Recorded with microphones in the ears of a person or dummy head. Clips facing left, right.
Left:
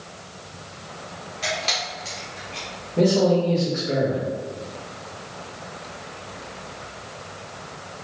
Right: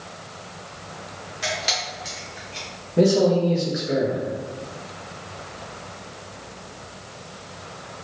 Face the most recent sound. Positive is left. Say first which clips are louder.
# right 1 dB
turn(degrees=-10)  # may be behind; listen again after turning